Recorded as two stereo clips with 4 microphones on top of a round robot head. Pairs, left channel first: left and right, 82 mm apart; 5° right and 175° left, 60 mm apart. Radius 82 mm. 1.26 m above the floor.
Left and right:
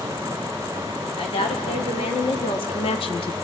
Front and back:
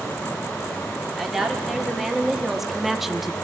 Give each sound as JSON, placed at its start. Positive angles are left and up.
{"t": 1.2, "sound": "a woman speaking", "azimuth_deg": 90, "distance_m": 3.0}